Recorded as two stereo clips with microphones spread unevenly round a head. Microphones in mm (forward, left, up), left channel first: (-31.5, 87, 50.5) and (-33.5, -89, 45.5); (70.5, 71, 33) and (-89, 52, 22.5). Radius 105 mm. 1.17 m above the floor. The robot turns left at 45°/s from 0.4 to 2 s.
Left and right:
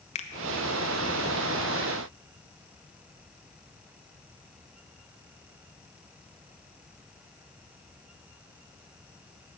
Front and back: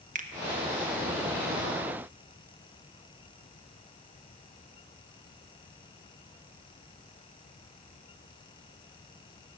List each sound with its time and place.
0.1 s a finger snap: 145° left, 0.9 m